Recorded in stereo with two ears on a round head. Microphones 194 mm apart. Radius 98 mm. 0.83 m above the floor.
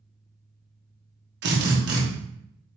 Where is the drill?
55° right (ahead or behind), 1.1 m.